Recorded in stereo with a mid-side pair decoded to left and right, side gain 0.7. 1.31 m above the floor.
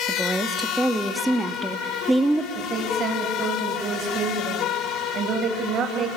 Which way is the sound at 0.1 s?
5° right.